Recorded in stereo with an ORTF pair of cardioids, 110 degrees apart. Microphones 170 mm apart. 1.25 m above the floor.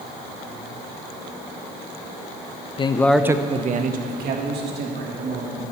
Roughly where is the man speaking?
Ahead left.